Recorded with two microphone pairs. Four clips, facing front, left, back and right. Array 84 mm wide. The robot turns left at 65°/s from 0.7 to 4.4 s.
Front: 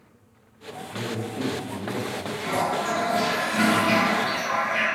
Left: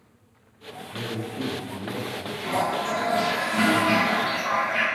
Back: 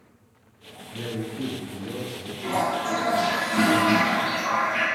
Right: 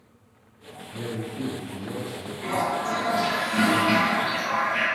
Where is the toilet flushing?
80° right, 2.0 m; by 4.8 s 150° left, 2.0 m.